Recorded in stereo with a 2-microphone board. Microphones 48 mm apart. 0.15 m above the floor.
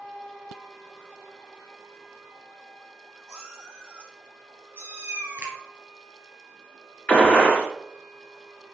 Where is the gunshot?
30° left (ahead or behind), 1.8 m.